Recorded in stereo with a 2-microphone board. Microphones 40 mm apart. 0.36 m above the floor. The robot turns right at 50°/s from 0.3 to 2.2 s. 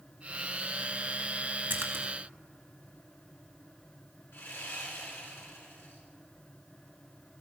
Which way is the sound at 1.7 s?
60° right (ahead or behind).